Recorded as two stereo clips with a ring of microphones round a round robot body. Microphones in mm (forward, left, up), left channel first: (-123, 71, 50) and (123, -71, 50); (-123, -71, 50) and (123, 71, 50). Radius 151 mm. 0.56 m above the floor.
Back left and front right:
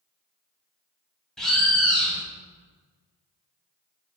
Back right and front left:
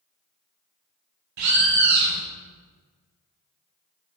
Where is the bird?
60° left, 0.8 m.